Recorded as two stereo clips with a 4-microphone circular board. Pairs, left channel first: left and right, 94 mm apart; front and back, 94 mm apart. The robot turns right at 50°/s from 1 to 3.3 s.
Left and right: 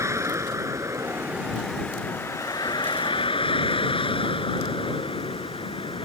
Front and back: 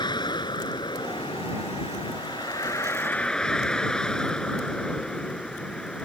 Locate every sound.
0.0 s a vehicle: 35° right; by 6.0 s 80° left